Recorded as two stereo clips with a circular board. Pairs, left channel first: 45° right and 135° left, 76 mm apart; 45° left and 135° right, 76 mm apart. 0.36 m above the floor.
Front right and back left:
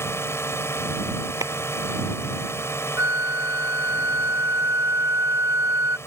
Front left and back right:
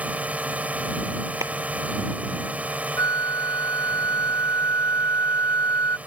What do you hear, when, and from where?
0.0 s a drone: 75° right
1.4 s a clap: straight behind
3.0 s a flute: 85° left